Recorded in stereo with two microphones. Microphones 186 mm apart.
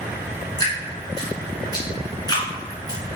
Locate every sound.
0.6 s dripping: 20° left (ahead or behind), 1.8 m